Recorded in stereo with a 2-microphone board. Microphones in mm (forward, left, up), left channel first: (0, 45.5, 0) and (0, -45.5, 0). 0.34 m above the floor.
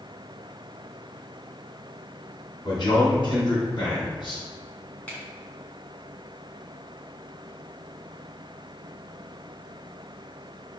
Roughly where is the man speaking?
Left.